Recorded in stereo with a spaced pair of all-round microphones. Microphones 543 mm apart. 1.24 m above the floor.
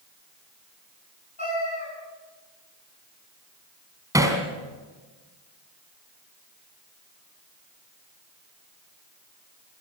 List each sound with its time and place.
1.4 s a cat meowing: 50° left (ahead or behind), 8.5 m
4.1 s hammering: 5° right (ahead or behind), 3 m